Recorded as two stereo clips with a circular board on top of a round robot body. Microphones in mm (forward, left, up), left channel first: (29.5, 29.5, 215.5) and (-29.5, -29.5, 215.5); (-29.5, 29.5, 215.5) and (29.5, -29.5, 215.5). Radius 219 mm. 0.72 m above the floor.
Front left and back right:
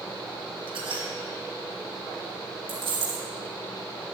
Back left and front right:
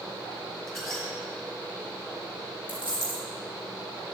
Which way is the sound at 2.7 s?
115° right.